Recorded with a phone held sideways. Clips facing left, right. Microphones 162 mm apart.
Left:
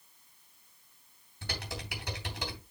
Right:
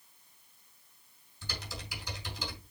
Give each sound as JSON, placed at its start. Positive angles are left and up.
{"t": 1.4, "sound": "typing on a keyboard", "side_deg": 65, "distance_m": 3.0}